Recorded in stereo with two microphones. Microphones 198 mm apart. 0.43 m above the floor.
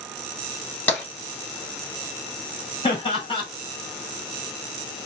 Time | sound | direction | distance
0.9 | tapping | 10° left (ahead or behind) | 3 m
2.8 | laughter | 30° left (ahead or behind) | 1.9 m